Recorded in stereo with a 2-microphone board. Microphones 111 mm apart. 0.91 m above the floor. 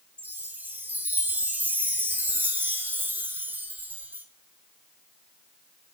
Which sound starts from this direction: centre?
A chime, at 0.2 s.